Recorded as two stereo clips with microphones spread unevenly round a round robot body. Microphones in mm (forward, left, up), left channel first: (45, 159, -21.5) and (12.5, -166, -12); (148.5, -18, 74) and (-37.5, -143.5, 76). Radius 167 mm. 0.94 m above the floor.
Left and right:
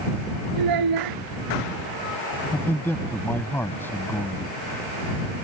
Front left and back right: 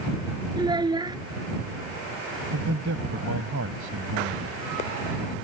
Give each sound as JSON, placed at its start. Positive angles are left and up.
{"t": 0.6, "sound": "a child speaking", "azimuth_deg": -75}
{"t": 2.5, "sound": "a man speaking", "azimuth_deg": 170}